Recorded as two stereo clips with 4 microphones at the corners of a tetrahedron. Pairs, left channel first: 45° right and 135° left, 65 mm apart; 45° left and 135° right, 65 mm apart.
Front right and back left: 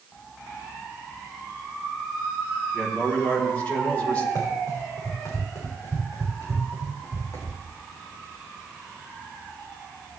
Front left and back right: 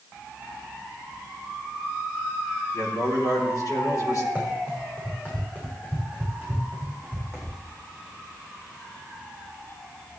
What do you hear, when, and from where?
2.7 s a man speaking: 25° left, 5 m
4.3 s running footsteps: 25° right, 5.5 m; by 7.6 s straight ahead, 5.5 m